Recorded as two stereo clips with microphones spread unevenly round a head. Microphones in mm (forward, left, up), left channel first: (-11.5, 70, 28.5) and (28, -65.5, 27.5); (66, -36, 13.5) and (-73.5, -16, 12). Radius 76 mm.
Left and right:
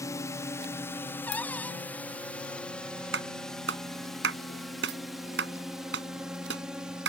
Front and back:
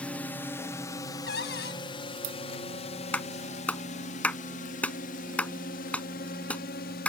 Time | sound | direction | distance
0.0 | a drone | 65° left | ?
1.3 | a cupboard door | 25° left | ?
3.1 | a clap | 90° right | ?